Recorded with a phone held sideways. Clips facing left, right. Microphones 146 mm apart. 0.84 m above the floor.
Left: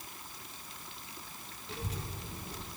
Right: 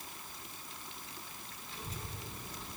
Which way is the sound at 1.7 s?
70° left (ahead or behind).